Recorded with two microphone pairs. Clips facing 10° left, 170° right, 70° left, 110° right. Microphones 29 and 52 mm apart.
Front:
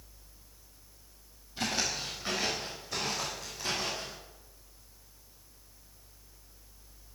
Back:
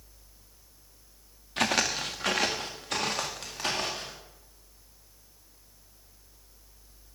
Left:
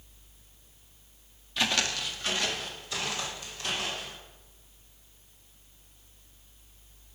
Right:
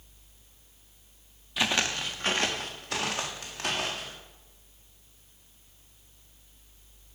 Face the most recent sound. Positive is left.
turn(degrees=-130)